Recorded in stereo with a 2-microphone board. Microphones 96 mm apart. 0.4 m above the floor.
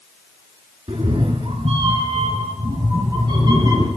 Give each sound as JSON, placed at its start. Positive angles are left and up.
{"t": 0.9, "sound": "a cat meowing", "side_deg": -80, "distance_m": 1.3}